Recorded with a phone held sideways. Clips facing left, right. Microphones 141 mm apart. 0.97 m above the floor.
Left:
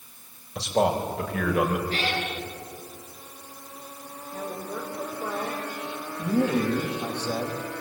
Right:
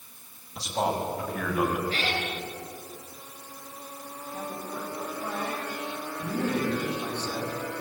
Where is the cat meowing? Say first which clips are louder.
Left 2 dB; 40° left (ahead or behind), 9 m.